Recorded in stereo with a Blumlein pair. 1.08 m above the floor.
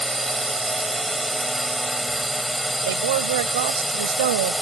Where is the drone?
5° right.